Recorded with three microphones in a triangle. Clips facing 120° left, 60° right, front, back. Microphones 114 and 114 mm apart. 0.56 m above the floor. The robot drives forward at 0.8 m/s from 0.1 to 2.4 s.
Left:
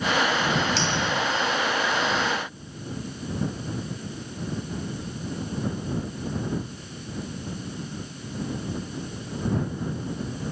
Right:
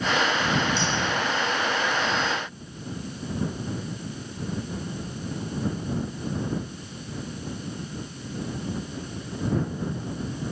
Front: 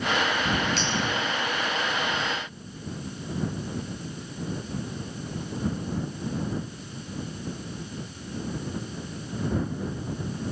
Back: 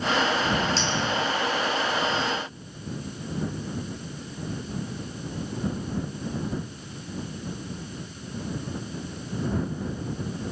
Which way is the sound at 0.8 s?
120° left.